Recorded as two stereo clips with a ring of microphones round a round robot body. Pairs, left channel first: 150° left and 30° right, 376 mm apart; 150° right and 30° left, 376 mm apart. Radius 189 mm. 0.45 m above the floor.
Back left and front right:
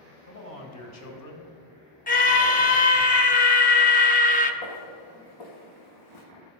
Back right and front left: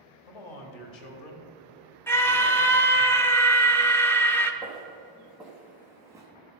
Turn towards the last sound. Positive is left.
turn(degrees=110)